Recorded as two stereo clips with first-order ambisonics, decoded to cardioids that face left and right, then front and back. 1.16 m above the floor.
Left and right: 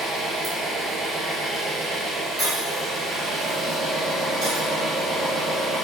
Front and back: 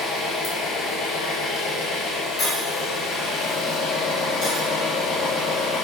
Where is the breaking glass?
50° right, 2 m.